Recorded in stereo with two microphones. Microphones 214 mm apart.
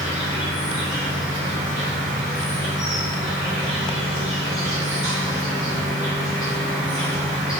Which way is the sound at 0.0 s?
20° left (ahead or behind).